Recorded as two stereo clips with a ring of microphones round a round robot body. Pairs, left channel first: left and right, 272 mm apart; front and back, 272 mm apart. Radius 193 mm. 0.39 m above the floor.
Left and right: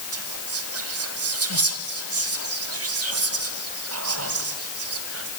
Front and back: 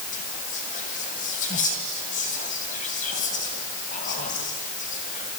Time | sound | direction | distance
0.1 | whispering | 65° right | 2.5 m